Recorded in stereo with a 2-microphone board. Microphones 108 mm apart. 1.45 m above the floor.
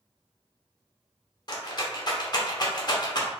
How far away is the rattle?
About 0.7 m.